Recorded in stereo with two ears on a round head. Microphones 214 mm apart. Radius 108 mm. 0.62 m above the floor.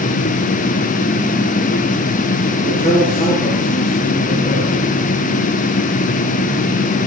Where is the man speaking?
25° left (ahead or behind), 7.5 m.